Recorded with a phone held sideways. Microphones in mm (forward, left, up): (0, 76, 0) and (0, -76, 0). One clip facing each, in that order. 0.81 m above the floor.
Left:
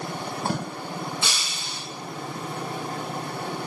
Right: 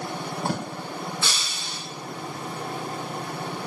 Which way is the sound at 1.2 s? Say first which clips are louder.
Even; 20° left (ahead or behind).